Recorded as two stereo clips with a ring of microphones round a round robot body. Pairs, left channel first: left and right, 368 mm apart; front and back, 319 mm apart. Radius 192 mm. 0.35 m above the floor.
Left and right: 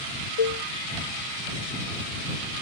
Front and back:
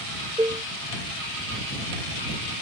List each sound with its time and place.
0.4 s dishes clattering: 100° left